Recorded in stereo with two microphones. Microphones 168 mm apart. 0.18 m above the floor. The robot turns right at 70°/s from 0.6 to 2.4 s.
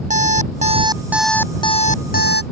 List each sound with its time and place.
0.1 s an alarm clock: 45° right; by 2.4 s 80° left